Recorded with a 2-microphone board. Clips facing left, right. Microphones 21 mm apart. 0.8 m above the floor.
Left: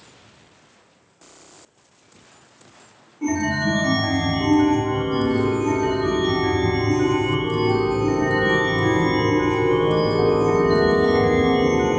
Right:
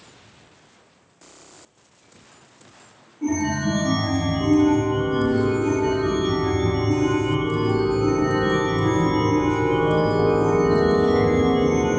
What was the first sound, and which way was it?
A chime, 45° left (ahead or behind).